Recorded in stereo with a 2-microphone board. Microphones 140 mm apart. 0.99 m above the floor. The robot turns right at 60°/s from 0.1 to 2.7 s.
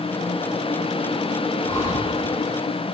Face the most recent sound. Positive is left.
turn(degrees=75)